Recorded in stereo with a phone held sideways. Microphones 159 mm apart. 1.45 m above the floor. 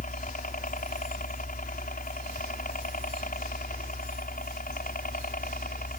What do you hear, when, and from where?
0.0 s a helicopter: 60° left (ahead or behind)